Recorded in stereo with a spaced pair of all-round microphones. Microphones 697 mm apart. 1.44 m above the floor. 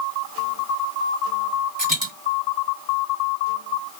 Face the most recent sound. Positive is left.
turn(degrees=-10)  # may be behind; listen again after turning